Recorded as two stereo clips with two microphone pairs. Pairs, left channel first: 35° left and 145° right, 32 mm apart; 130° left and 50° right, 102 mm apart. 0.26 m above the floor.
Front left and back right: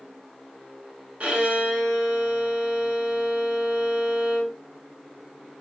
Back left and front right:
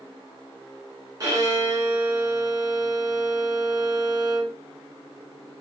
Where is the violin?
95° right, 1.6 m.